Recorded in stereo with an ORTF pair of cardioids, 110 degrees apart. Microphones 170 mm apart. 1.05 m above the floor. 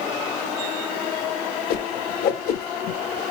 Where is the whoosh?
65° left, 0.7 m.